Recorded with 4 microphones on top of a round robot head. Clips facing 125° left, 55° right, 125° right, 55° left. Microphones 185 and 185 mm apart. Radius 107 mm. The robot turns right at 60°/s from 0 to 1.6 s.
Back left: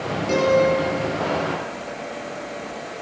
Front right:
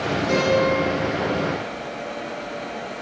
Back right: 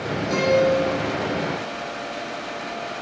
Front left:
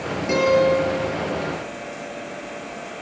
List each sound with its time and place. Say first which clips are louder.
0.3 s a guitar: back left 3 dB, front left 2 dB; 55° left, 6.5 m; by 0.8 s 85° left, 6.5 m